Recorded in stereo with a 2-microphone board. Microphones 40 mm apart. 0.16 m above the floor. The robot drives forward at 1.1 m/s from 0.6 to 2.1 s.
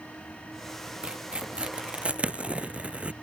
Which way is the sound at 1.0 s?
25° right (ahead or behind).